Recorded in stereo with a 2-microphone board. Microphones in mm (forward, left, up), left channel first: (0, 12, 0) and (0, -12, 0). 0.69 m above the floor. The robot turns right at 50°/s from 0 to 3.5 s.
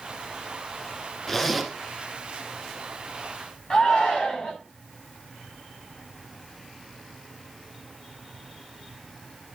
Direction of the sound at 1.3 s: 15° left (ahead or behind).